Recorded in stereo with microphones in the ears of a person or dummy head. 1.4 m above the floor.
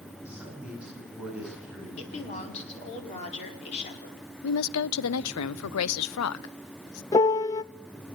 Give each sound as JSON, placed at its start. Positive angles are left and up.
{"t": 0.2, "sound": "a man speaking", "side_deg": -5, "distance_m": 9.5}
{"t": 2.0, "sound": "a woman speaking", "side_deg": 35, "distance_m": 4.5}
{"t": 4.4, "sound": "a woman speaking", "side_deg": 80, "distance_m": 0.6}
{"t": 7.1, "sound": "a piano", "side_deg": 20, "distance_m": 0.5}